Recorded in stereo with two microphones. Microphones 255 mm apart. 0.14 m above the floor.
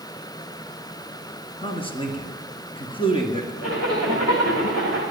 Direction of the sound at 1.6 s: 20° left (ahead or behind).